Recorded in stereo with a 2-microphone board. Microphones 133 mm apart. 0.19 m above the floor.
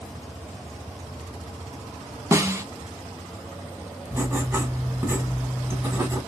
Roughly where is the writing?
Centre.